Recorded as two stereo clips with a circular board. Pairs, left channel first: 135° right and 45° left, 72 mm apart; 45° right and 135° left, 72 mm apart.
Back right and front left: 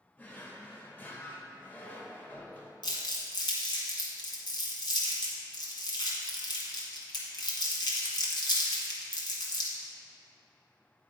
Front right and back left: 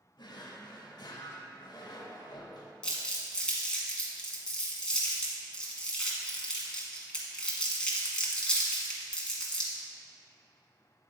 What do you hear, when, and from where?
0.2 s a drawer: 70° right, 0.8 m
2.8 s crumpling: 125° right, 1.4 m